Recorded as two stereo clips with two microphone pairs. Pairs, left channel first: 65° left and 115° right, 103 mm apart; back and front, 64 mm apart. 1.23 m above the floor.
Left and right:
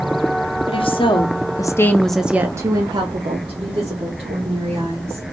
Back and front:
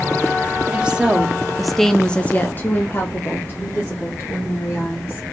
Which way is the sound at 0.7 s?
70° left.